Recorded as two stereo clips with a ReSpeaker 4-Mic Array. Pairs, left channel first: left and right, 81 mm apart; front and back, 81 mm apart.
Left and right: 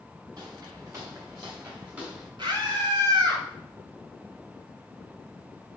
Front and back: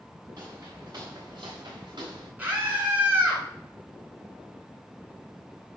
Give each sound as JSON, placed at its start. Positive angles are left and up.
{"t": 0.4, "sound": "footsteps", "azimuth_deg": -135, "distance_m": 4.0}
{"t": 2.4, "sound": "a scream", "azimuth_deg": -115, "distance_m": 3.5}